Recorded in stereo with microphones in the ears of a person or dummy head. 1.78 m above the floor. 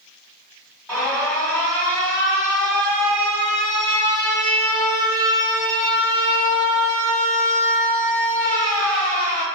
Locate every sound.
0.9 s an alarm: 5° left (ahead or behind), 1.0 m